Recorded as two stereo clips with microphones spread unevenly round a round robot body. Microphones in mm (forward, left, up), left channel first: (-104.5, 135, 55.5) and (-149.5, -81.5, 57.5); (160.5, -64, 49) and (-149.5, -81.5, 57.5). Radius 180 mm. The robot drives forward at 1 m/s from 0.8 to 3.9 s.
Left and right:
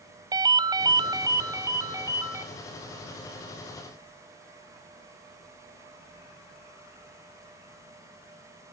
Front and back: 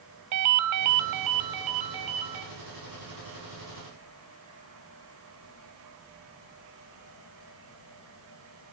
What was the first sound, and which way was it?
A ringtone, 175° right.